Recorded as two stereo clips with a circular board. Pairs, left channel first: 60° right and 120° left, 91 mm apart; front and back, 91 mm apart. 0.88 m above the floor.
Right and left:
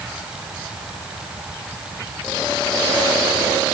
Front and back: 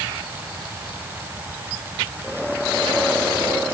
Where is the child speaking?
I don't hear a child speaking.